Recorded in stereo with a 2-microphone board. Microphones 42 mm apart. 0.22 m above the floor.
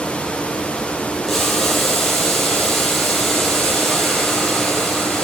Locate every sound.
1.3 s boiling: 5° left (ahead or behind), 6 m